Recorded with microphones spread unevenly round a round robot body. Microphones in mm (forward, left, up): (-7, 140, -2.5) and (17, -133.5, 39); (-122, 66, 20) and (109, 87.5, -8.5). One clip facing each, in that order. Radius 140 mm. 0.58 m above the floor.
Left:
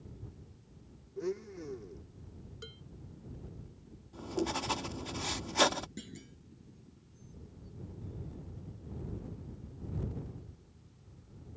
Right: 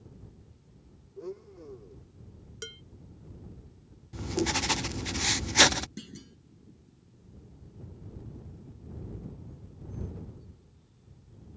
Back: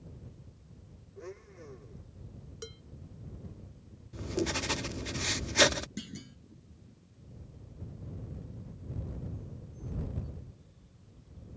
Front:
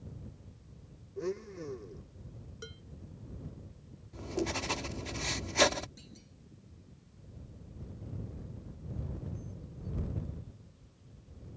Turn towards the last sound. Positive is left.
turn(degrees=-155)